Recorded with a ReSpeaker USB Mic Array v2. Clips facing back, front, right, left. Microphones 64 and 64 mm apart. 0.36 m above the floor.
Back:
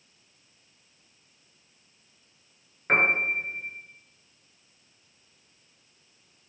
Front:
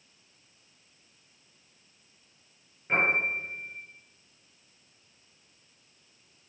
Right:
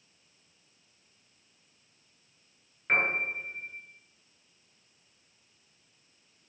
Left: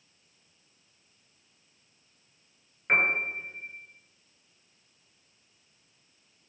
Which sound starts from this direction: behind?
A piano, at 2.9 s.